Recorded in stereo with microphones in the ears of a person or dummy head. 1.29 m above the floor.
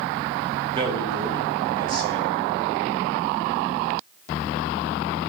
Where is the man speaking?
30° right (ahead or behind), 2 m.